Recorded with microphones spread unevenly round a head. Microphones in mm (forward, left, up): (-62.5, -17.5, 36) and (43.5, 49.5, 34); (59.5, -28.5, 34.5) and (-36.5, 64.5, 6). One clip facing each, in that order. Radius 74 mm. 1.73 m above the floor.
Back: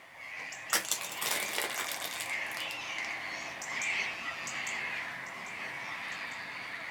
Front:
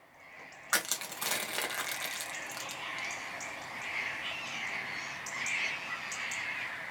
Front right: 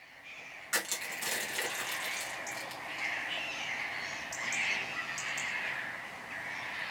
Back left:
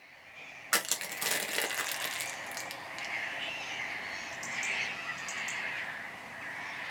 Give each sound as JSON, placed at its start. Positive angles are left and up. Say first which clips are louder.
{"t": 0.7, "sound": "crushing", "louder": "front 1 dB, back left 2 dB", "azimuth_deg": 130, "distance_m": 1.5}